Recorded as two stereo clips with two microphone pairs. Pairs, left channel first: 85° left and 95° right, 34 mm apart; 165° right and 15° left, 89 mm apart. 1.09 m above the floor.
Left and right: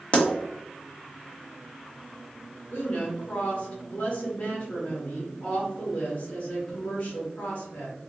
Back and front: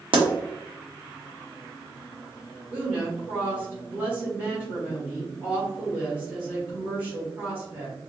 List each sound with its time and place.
0.1 s a pop: 35° left, 1.1 m
2.7 s a woman speaking: 80° left, 1.9 m